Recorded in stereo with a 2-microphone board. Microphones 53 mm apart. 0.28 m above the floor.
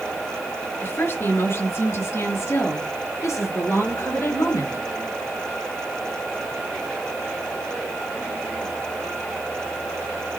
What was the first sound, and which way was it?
A woman speaking, 50° left (ahead or behind).